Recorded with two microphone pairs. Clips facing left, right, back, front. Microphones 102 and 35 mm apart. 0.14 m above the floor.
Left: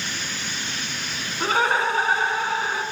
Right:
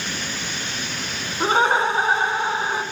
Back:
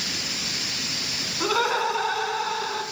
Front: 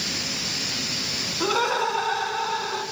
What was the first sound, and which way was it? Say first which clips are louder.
Laughter: right 3 dB, even; 90° right.